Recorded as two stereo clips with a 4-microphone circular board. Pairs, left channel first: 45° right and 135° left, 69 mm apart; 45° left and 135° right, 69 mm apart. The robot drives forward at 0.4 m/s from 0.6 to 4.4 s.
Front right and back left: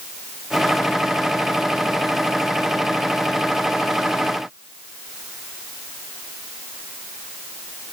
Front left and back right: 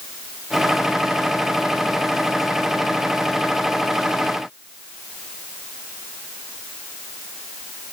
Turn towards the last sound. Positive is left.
No sound to turn to.